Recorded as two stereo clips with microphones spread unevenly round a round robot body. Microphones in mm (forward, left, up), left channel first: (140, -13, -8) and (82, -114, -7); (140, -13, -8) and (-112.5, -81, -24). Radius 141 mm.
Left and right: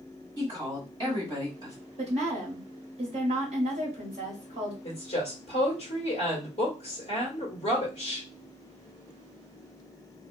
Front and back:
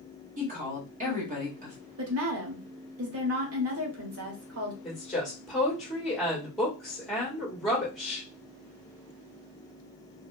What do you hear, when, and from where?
0.4 s a woman speaking: 150° right, 1.3 m
2.0 s a woman speaking: 150° right, 1.1 m
4.8 s a woman speaking: 105° left, 1.2 m